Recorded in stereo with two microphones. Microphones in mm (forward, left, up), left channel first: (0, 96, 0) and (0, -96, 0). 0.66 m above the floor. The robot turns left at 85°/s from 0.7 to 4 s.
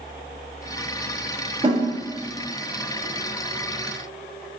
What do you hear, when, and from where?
1.6 s a snare drum: 40° right (ahead or behind), 1.1 m; by 1.8 s 30° right (ahead or behind), 1.1 m